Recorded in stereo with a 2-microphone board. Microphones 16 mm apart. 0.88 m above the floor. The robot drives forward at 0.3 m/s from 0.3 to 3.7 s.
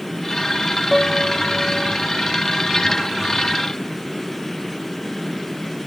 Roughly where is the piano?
Centre.